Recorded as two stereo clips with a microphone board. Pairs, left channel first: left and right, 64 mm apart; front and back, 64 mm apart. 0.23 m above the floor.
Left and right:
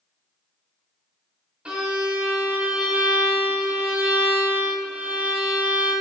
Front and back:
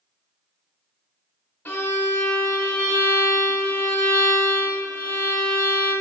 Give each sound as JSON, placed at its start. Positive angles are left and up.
{"t": 1.6, "sound": "a violin", "azimuth_deg": -35, "distance_m": 1.4}